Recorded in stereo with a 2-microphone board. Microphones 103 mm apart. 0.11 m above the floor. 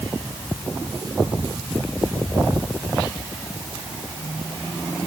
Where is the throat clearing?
No throat clearing in this recording.